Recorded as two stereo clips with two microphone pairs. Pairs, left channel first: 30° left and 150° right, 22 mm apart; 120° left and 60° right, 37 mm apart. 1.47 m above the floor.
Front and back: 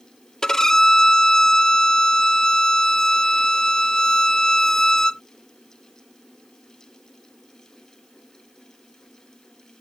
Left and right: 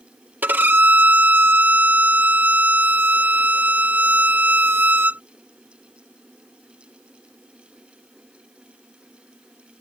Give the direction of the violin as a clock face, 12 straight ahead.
1 o'clock.